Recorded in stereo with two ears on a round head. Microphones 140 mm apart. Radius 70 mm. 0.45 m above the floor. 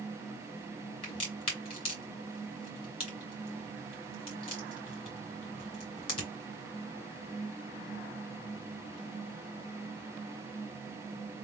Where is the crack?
30° left (ahead or behind), 2.5 m.